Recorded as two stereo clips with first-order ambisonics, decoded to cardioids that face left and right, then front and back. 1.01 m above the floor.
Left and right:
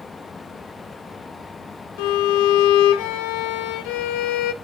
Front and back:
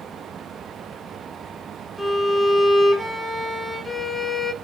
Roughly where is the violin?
Left.